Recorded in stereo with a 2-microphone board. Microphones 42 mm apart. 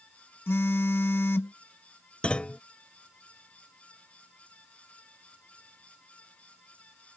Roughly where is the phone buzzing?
Left.